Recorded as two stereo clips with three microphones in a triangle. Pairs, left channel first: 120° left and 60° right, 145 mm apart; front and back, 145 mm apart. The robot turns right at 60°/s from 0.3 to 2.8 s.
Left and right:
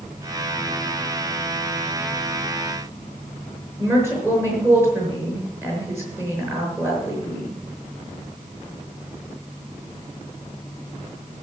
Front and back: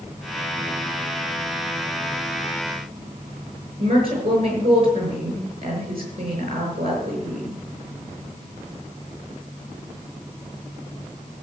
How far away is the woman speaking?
About 7 m.